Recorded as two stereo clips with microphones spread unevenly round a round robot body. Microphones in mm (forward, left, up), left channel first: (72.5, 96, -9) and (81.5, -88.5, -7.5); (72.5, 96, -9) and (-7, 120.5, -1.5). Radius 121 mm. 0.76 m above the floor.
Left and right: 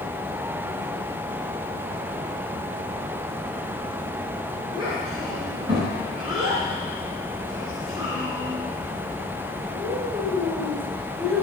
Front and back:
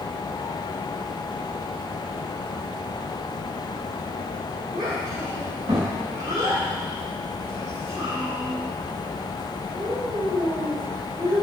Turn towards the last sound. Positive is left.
turn(degrees=-160)